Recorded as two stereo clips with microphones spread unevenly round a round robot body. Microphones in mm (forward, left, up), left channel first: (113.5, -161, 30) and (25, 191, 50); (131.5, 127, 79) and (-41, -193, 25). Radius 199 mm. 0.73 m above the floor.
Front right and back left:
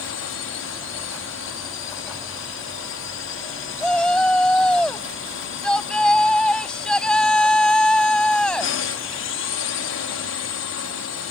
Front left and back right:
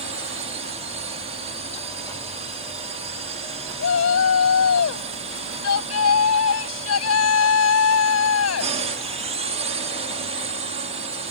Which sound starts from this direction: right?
A drone, at 0.0 s.